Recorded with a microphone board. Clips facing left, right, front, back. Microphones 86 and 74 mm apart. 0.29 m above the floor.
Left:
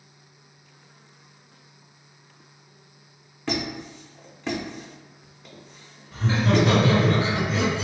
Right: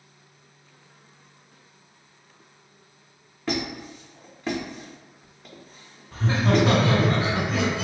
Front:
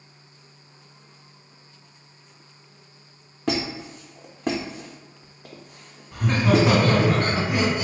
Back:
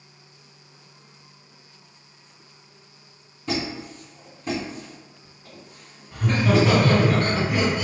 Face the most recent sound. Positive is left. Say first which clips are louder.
# even, even
turn(degrees=-65)